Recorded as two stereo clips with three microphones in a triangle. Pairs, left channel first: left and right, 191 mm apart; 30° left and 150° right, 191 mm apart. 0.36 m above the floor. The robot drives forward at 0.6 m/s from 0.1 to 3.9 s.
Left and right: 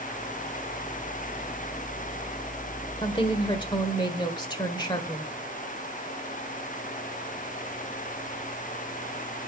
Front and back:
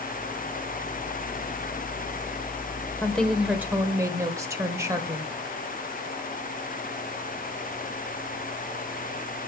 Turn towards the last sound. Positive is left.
turn(degrees=145)